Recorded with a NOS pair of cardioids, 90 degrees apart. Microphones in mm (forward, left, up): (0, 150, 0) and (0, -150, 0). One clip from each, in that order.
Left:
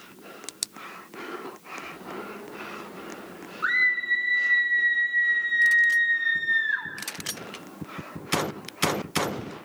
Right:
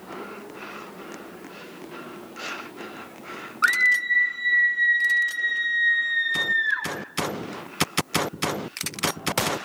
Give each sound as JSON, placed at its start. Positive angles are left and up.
{"t": 3.6, "sound": "a scream", "azimuth_deg": -65, "distance_m": 7.5}